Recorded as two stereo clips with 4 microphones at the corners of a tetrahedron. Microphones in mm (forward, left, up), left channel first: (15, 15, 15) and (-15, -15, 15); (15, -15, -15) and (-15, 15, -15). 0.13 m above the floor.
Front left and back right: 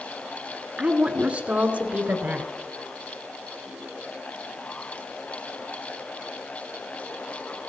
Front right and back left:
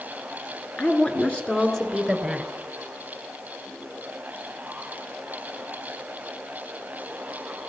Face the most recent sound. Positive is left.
turn(degrees=-145)